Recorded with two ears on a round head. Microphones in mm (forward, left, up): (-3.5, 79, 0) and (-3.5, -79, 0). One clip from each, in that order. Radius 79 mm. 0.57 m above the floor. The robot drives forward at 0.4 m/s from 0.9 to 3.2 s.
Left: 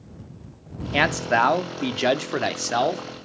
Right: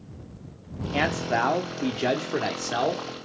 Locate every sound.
0.9 s a man speaking: 40° left (ahead or behind), 1.1 m; by 3.0 s 30° left (ahead or behind), 1.4 m